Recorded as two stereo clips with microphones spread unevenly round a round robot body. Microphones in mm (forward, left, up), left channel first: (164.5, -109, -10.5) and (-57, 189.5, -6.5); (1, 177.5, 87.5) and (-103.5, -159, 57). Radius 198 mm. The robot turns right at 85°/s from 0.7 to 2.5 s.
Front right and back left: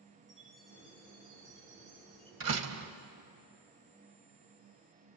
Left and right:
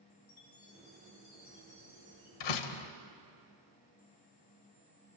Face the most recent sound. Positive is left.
turn(degrees=80)